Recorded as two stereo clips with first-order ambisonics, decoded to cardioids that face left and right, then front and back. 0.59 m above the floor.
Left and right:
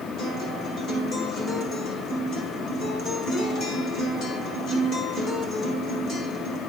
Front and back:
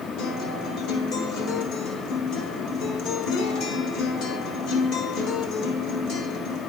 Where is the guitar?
35° left, 1.5 m.